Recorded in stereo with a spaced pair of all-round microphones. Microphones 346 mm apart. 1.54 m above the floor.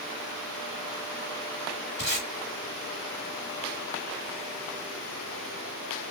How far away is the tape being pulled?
About 1.4 m.